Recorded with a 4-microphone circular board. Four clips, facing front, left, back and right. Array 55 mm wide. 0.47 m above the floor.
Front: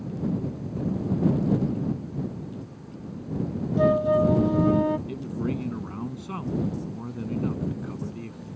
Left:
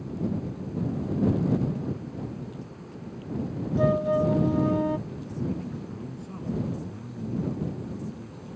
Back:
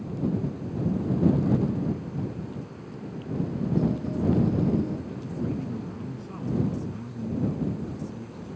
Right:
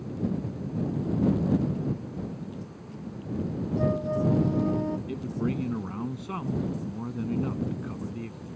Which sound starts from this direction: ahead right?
A man speaking, at 5.1 s.